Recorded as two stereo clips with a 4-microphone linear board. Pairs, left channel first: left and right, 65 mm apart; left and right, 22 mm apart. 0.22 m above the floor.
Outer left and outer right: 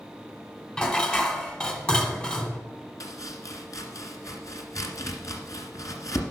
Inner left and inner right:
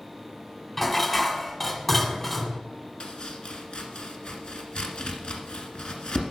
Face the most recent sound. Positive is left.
turn(degrees=60)  # may be behind; listen again after turning